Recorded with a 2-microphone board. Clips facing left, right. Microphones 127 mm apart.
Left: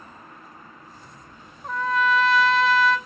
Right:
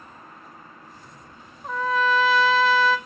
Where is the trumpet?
Centre (ahead or behind), 0.5 m.